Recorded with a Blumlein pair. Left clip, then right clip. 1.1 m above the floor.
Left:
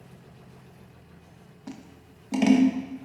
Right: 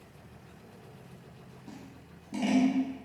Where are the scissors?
50° left, 0.6 m.